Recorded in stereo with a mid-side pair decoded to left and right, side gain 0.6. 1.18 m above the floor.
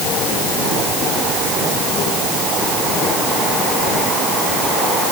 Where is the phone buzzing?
No phone buzzing in this recording.